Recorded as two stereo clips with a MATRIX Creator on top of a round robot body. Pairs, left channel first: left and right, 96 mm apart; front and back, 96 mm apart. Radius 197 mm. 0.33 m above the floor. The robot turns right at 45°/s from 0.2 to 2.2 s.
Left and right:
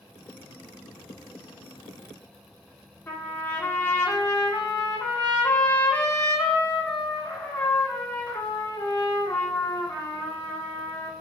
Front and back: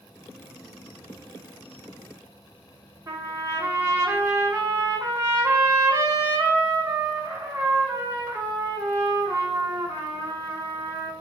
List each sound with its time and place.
3.1 s a trumpet: 150° left, 1.7 m